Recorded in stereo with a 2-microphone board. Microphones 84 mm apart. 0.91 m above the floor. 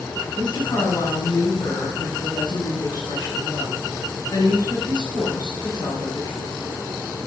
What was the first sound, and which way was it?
A woman speaking, 60° left (ahead or behind).